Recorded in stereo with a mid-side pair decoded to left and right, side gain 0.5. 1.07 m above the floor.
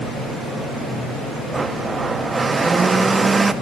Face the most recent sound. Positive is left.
turn(degrees=-20)